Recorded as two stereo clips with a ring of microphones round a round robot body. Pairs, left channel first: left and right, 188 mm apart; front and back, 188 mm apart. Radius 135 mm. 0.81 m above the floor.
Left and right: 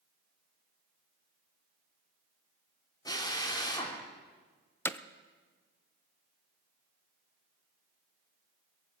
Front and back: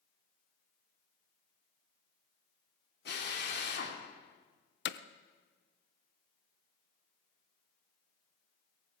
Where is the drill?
20° left, 3 m.